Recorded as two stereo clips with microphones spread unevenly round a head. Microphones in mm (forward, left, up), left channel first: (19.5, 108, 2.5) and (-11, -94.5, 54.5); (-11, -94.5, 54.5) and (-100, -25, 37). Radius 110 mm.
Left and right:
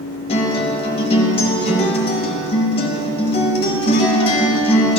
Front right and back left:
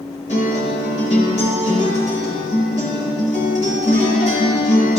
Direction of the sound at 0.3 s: 10° left.